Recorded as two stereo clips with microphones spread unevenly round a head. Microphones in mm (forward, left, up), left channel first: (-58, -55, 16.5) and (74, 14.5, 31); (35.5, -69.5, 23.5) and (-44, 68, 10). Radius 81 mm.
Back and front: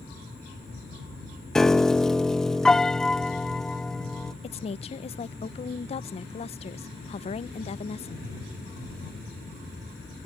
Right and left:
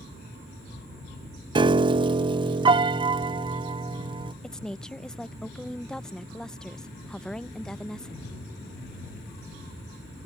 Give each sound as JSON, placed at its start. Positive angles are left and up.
{"t": 1.6, "sound": "a piano", "azimuth_deg": 130}
{"t": 4.4, "sound": "a woman speaking", "azimuth_deg": -150}